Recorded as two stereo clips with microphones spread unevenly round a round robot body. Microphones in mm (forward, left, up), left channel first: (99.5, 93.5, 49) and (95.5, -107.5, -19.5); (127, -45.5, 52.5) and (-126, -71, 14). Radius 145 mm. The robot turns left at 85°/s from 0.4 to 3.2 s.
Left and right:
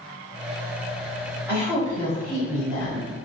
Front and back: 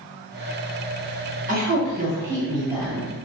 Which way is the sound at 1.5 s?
145° right.